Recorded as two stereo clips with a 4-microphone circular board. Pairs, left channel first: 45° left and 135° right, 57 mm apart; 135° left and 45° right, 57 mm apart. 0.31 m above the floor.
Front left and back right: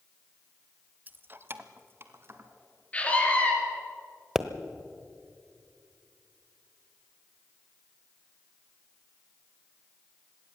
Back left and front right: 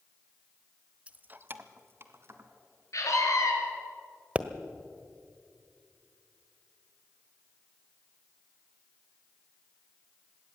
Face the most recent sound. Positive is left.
turn(degrees=-60)